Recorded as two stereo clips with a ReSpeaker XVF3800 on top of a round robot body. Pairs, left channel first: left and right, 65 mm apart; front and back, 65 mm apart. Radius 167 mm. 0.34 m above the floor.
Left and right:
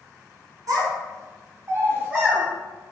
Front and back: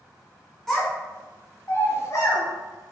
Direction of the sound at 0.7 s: 90° right.